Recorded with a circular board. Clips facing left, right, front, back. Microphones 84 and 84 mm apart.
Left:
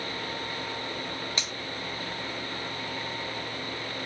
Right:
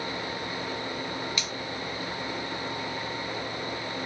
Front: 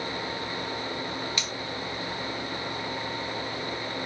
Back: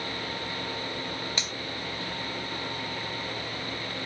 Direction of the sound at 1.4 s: 135° left.